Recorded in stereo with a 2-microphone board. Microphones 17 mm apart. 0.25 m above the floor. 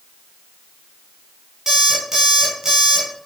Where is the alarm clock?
30° right (ahead or behind), 2.5 m.